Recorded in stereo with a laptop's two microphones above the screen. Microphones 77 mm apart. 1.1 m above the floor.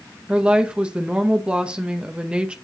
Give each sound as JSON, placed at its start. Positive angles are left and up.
{"t": 0.3, "sound": "a woman speaking", "side_deg": -15, "distance_m": 0.8}